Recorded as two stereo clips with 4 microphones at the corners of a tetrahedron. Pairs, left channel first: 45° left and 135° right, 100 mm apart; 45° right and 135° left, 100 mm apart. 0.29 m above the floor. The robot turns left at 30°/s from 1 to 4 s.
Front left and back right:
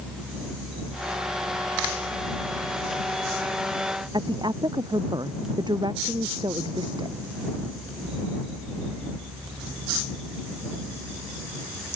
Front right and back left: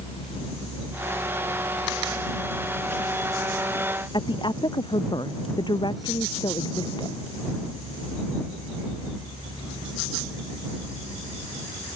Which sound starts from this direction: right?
A woman speaking, at 4.1 s.